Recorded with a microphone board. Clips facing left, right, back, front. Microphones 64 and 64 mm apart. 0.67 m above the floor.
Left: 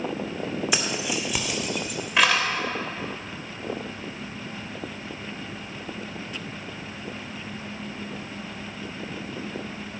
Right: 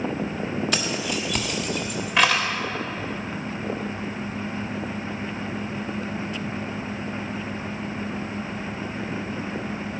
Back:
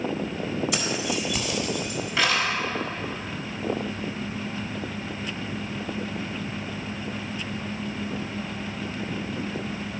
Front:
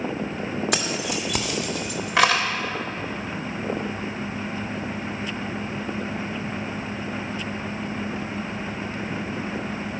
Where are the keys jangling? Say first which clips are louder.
Right 1 dB, front 1 dB; 15° left, 1.3 m; by 2.5 s straight ahead, 2 m.